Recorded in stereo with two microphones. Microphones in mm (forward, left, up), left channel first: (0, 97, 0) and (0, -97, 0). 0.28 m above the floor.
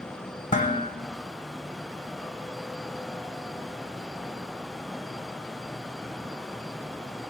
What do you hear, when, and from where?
0.5 s dishes clattering: 40° left (ahead or behind), 1.1 m